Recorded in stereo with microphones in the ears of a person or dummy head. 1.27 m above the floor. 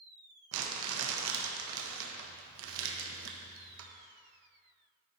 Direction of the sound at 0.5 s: 75° right (ahead or behind).